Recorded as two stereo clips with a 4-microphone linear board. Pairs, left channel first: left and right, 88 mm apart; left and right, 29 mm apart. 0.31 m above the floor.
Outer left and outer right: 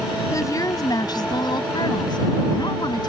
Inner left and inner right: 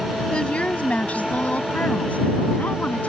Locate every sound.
0.3 s a woman speaking: 40° left (ahead or behind); by 3.1 s 55° left (ahead or behind)